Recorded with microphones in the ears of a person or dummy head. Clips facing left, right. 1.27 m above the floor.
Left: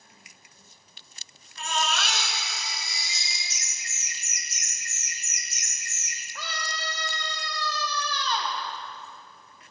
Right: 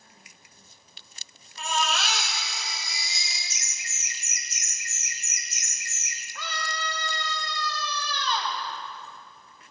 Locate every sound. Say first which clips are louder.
1.6 s a baby crying: right 1 dB; 65° left (ahead or behind), 3 m
3.5 s laughter: even; 65° right (ahead or behind), 0.7 m
6.3 s a scream: right 2 dB; 30° left (ahead or behind), 2.0 m